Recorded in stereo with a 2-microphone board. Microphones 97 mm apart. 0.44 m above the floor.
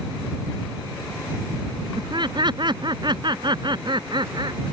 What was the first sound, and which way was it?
Laughter, 50° right (ahead or behind).